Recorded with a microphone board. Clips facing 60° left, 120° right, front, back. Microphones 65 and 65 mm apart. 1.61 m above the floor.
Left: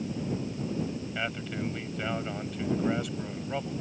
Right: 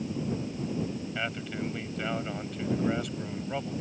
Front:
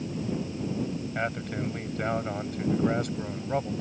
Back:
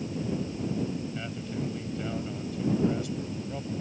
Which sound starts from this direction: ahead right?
A man speaking, at 1.1 s.